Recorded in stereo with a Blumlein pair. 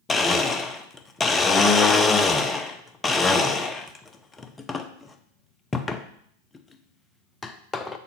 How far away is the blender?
About 0.6 m.